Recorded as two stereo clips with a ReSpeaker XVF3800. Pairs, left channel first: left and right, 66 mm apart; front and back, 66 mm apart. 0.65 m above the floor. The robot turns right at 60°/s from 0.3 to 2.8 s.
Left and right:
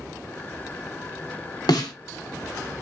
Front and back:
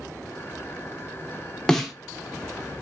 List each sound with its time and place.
1.7 s a snare drum: 80° left, 0.7 m; by 1.9 s 95° left, 0.7 m